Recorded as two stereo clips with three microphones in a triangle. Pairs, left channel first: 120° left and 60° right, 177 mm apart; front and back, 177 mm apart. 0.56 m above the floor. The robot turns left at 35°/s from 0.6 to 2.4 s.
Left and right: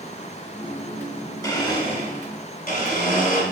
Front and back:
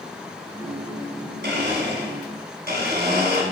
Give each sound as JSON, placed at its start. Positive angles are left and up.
{"t": 1.4, "sound": "a blender", "azimuth_deg": -170, "distance_m": 2.0}